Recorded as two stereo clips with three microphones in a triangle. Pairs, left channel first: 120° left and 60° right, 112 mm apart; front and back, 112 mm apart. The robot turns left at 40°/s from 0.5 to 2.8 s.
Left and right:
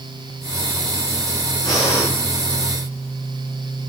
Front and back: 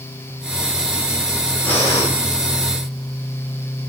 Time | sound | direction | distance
1.6 | breathing | 75° left | 5.5 m